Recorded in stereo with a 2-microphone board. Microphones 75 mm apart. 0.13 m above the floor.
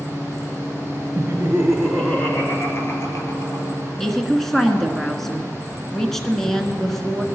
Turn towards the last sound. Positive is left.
turn(degrees=5)  # may be behind; listen again after turning